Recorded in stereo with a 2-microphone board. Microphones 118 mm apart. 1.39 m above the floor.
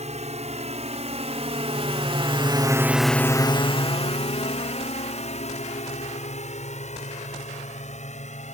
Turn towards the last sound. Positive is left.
turn(degrees=75)  # may be behind; listen again after turning